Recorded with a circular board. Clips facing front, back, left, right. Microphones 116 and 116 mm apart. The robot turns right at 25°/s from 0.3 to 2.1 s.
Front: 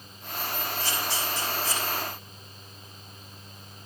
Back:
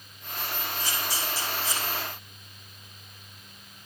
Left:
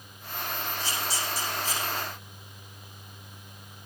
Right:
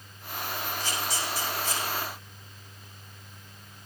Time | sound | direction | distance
0.8 | a camera shutter | 135° right | 8 m